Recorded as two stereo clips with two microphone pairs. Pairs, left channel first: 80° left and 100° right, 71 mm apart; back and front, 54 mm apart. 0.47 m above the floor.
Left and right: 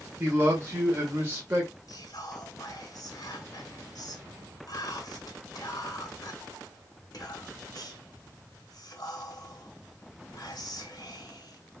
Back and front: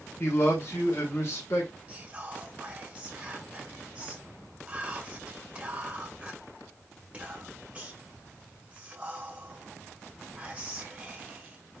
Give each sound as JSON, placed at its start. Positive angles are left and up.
{"t": 0.2, "sound": "a man speaking", "azimuth_deg": -155, "distance_m": 1.5}
{"t": 1.9, "sound": "whispering", "azimuth_deg": 65, "distance_m": 1.6}